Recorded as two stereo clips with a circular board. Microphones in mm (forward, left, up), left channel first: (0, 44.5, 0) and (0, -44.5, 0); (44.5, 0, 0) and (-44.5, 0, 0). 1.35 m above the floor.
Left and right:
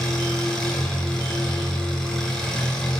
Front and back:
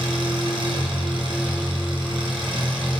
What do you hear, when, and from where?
0.0 s an engine running: 175° left, 4.5 m